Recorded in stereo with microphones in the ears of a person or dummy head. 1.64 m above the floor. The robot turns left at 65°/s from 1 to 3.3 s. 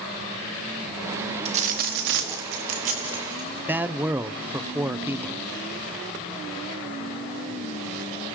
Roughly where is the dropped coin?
Ahead right.